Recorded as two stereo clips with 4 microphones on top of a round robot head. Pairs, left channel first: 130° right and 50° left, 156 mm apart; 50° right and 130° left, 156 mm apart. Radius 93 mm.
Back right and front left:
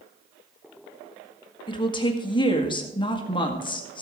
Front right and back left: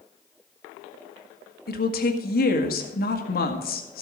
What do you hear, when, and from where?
1.7 s a woman speaking: 70° right, 1.9 m